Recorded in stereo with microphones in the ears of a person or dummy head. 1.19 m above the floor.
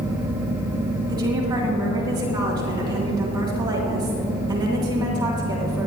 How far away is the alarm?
No alarm in this recording.